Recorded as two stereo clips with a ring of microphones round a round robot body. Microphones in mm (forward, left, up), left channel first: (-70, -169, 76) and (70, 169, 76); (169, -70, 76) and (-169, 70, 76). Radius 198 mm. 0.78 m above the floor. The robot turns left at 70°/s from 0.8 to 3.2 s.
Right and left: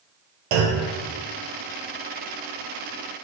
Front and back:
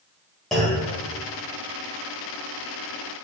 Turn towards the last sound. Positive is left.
turn(degrees=-100)